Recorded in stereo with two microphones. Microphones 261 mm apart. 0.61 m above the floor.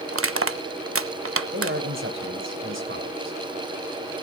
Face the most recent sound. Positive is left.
turn(degrees=-50)  # may be behind; listen again after turning